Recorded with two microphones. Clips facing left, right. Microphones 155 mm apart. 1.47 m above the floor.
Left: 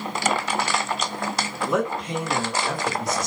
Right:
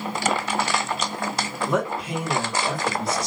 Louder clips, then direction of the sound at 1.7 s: Left 1 dB; 5° left (ahead or behind).